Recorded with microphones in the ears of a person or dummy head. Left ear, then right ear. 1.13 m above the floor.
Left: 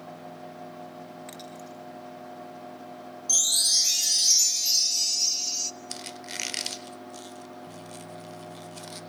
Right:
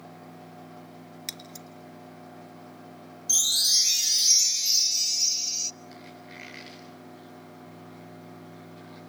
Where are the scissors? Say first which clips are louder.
Right 1 dB; 80° right, 3.5 m.